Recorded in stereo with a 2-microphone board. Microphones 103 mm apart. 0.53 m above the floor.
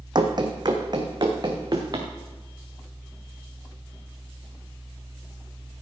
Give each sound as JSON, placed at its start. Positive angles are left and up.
{"t": 0.1, "sound": "running footsteps", "side_deg": -45, "distance_m": 1.4}